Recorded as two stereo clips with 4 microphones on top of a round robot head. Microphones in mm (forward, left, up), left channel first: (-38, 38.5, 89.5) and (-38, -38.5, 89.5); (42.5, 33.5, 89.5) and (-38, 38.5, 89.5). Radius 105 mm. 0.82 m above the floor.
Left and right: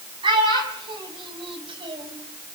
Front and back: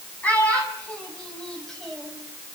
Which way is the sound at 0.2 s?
80° right.